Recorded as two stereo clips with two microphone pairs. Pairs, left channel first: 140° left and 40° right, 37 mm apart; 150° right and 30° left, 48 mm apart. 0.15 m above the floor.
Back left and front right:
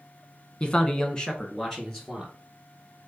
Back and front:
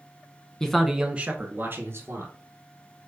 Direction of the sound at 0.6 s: 155° left.